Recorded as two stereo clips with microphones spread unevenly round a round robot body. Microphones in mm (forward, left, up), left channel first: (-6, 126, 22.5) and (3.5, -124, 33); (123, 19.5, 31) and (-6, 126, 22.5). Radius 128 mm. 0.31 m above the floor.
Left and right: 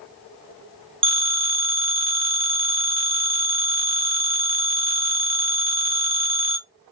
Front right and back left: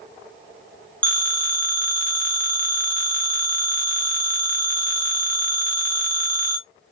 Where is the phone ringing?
110° right, 0.6 m.